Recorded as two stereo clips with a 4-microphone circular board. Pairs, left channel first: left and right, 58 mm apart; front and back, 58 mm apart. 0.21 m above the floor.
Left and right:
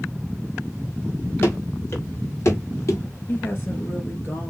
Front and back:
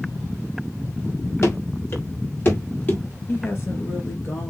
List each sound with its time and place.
1.4 s running footsteps: 40° left, 3 m; by 3.0 s 55° left, 3 m
3.3 s a woman speaking: 45° left, 3 m